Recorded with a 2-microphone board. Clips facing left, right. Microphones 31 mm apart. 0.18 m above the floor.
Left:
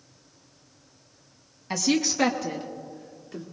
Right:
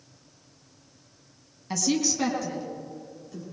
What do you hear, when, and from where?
1.7 s a woman speaking: 20° left (ahead or behind), 1.0 m; by 3.4 s 40° left (ahead or behind), 1.9 m